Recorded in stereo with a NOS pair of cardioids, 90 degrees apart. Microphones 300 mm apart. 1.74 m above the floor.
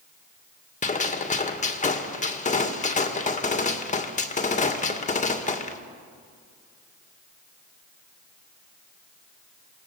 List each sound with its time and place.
0.8 s a gunshot: 25° left, 2 m